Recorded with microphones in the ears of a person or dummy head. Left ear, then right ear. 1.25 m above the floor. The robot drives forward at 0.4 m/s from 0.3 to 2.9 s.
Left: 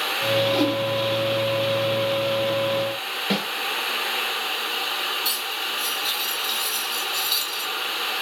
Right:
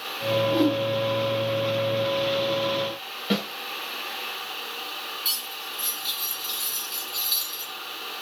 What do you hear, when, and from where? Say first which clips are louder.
0.5 s a whoosh: left 1 dB; 50° left (ahead or behind), 1.3 m; by 0.8 s 55° left (ahead or behind), 1.2 m
3.3 s a snare drum: even; 20° left (ahead or behind), 2 m
5.2 s cutlery clinking: left 4 dB; 15° left (ahead or behind), 2.5 m